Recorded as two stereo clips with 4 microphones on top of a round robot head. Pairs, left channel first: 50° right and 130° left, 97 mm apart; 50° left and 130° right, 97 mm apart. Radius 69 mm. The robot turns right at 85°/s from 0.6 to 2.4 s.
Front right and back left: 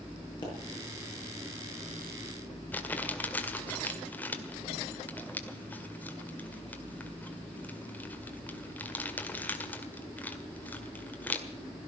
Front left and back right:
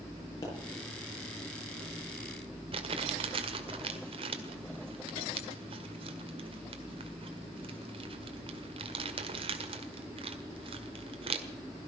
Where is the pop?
5° right, 7.5 m.